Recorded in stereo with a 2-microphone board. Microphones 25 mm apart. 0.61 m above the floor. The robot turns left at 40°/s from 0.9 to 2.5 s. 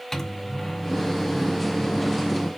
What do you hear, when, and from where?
0.1 s a microwave: 20° left (ahead or behind), 0.7 m; by 2.5 s centre (ahead or behind), 0.7 m